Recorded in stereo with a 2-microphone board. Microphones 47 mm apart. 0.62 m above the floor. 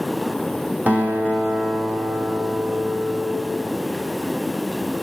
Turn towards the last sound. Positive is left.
turn(degrees=-45)  # may be behind; listen again after turning